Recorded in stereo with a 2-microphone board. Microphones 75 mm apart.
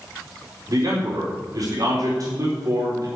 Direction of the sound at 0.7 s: 55° right (ahead or behind).